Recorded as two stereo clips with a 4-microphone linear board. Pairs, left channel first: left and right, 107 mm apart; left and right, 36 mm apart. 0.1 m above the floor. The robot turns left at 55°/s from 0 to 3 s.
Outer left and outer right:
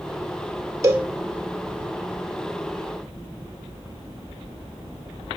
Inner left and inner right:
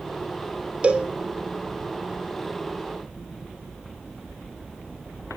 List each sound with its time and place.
0.8 s a cowbell: 30° right (ahead or behind), 1.2 m; by 1.1 s 15° right (ahead or behind), 1.2 m